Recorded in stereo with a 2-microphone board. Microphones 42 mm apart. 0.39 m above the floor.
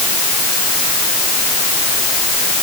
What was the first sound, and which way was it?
Only background noise.